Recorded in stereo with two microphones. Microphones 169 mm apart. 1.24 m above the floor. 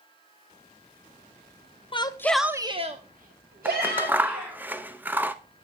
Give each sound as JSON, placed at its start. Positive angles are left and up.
{"t": 1.9, "sound": "a shout", "side_deg": 30, "distance_m": 0.7}
{"t": 3.6, "sound": "scissors", "side_deg": -10, "distance_m": 0.5}